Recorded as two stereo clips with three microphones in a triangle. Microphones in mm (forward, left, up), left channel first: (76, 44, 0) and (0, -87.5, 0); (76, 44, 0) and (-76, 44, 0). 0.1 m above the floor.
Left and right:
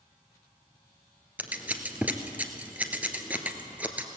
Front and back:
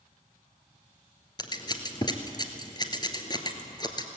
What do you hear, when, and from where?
1.4 s scissors: 45° right, 1.5 m